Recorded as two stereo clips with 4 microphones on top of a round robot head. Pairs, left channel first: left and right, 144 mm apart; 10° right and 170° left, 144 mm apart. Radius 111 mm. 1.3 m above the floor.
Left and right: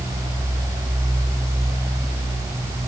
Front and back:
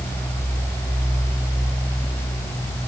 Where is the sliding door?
I don't hear a sliding door.